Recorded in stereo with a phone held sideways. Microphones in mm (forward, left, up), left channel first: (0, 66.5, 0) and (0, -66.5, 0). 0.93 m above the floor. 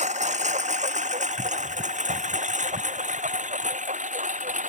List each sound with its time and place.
0.0 s a lawn mower: 60° right (ahead or behind); by 4.7 s 65° right (ahead or behind)